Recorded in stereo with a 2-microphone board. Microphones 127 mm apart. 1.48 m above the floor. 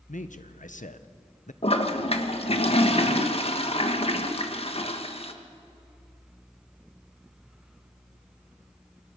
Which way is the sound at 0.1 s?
80° left.